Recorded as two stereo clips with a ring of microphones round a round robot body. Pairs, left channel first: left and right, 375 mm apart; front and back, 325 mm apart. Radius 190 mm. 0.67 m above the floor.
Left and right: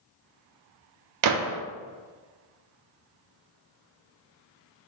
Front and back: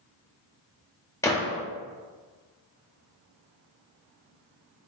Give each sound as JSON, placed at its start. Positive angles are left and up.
{"t": 1.2, "sound": "a gunshot", "azimuth_deg": -80, "distance_m": 0.6}